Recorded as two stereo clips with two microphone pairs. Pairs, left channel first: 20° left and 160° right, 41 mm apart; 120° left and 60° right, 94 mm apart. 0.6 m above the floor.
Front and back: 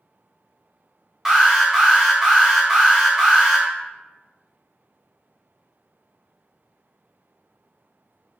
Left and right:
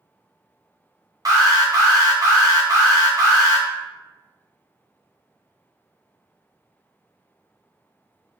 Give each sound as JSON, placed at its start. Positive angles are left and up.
{"t": 1.2, "sound": "an alarm", "azimuth_deg": -90, "distance_m": 0.7}